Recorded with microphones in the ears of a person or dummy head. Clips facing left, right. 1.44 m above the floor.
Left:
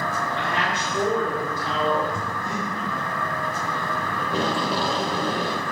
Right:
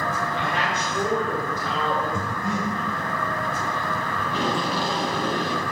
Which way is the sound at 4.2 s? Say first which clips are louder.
Left 1 dB; 35° left (ahead or behind).